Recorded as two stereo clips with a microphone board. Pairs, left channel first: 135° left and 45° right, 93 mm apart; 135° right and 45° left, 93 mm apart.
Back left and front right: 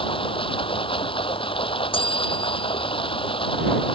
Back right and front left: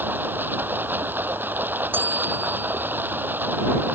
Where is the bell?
115° left.